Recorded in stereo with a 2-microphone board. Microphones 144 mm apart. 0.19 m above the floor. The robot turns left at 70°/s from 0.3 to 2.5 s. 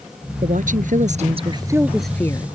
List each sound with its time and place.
0.4 s a woman speaking: 65° right; by 2.5 s 150° left